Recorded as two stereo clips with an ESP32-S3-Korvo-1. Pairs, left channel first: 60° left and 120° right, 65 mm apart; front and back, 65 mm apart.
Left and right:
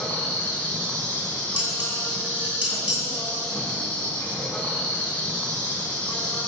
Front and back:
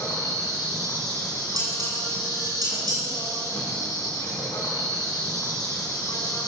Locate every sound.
0.0 s an insect: 10° right, 2.5 m
1.6 s dishes clattering: straight behind, 3.5 m